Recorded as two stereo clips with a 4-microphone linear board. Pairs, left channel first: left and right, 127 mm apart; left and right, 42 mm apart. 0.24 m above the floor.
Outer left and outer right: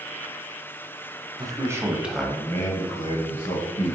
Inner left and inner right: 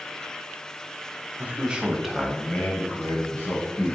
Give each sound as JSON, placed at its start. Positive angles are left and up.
{"t": 1.4, "sound": "a man speaking", "side_deg": -30, "distance_m": 1.6}